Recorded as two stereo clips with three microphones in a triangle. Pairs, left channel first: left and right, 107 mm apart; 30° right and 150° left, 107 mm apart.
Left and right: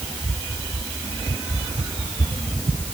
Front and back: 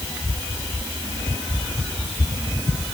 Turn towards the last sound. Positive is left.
No sound to turn to.